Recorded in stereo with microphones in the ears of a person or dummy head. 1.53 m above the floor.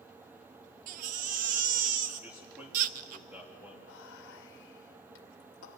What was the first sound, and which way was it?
A baby crying, 45° right (ahead or behind).